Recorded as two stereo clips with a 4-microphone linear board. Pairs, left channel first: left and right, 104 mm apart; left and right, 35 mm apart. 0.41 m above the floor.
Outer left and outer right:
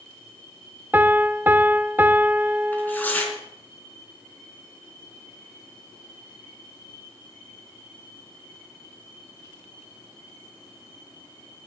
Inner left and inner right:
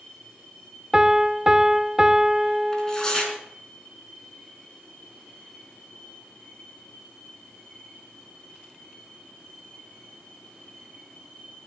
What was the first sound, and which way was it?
A piano, 20° right (ahead or behind).